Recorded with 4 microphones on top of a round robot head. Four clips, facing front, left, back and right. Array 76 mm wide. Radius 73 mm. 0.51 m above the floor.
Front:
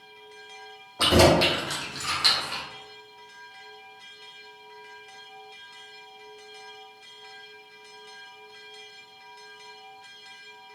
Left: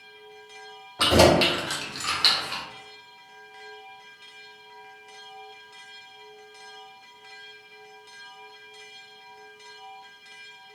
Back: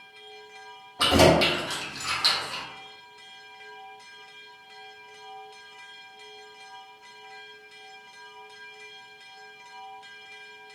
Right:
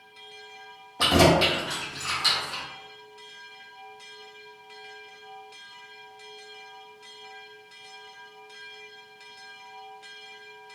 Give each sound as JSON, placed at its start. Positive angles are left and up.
{"t": 1.0, "sound": "keys jangling", "azimuth_deg": 100, "distance_m": 1.4}